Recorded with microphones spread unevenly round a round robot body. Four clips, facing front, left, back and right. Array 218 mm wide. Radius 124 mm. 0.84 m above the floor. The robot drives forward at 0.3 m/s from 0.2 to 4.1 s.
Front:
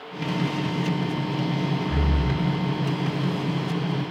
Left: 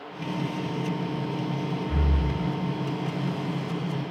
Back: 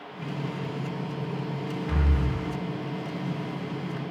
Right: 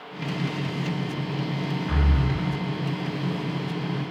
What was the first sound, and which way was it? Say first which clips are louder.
Breathing: right 2 dB, front 4 dB; 100° right.